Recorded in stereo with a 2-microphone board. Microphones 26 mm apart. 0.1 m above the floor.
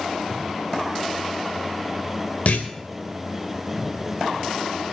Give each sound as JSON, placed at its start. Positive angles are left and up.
{"t": 2.5, "sound": "a clunk", "side_deg": 55, "distance_m": 3.0}